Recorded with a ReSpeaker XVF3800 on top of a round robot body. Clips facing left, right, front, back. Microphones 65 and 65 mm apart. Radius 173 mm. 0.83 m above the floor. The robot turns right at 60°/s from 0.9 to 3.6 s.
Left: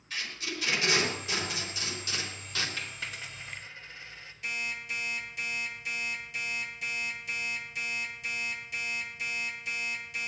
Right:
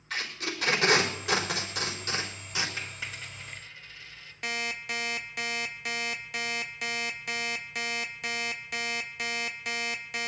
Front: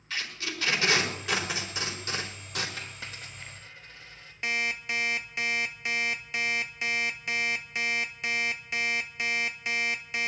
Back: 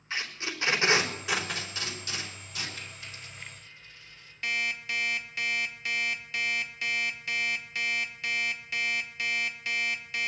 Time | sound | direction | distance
0.1 | tape being pulled | 115° right | 4.5 m
2.8 | a dropped coin | 20° right | 3 m
4.4 | an alarm clock | 65° right | 0.9 m